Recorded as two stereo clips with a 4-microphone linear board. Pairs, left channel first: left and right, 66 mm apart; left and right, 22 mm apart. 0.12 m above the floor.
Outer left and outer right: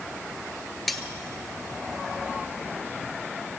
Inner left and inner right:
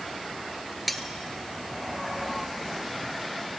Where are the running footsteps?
I don't hear running footsteps.